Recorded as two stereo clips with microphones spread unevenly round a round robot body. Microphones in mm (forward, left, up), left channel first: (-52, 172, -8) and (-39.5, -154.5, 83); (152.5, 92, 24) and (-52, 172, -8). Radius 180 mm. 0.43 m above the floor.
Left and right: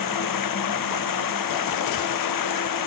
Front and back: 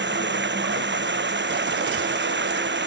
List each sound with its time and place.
0.0 s running water: 120° left